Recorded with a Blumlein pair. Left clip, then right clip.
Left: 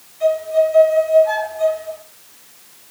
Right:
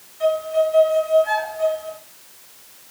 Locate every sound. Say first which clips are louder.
0.2 s a violin: left 3 dB; 70° right, 3 m